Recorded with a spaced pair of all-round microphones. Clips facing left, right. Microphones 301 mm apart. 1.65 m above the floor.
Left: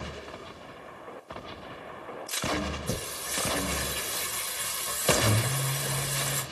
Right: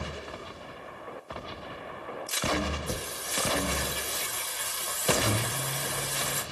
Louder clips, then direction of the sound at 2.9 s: Left 1 dB; 30° left (ahead or behind).